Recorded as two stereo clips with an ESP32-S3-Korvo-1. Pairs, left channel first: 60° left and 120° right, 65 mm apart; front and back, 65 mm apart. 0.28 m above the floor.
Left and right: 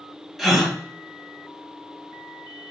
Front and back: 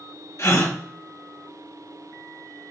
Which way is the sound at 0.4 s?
35° right.